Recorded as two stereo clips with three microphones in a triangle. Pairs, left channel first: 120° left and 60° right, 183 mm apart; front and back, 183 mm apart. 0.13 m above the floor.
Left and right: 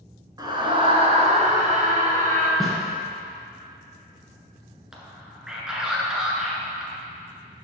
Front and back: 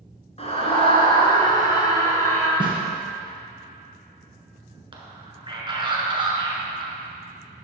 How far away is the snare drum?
About 1.6 m.